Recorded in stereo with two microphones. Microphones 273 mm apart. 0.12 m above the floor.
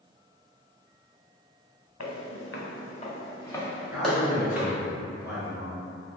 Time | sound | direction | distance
2.0 | footsteps | 70° left (ahead or behind) | 0.8 m
3.9 | a man speaking | 10° right (ahead or behind) | 1.3 m